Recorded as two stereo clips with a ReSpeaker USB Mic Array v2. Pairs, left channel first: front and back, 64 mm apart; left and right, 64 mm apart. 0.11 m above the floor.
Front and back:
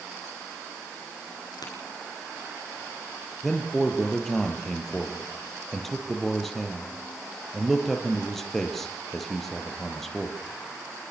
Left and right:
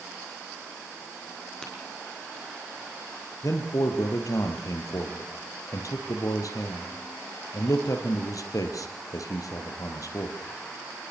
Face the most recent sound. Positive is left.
turn(degrees=85)